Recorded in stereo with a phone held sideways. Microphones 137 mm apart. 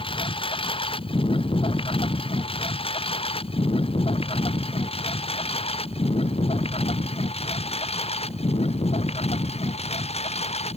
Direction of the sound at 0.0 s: 40° left (ahead or behind).